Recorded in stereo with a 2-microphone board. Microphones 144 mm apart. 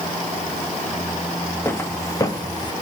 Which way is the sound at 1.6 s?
15° left (ahead or behind).